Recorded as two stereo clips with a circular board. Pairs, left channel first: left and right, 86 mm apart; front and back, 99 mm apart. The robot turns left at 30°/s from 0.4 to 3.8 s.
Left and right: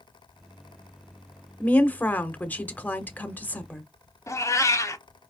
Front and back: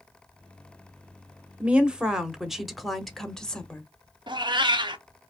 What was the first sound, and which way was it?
A woman speaking, 125° left.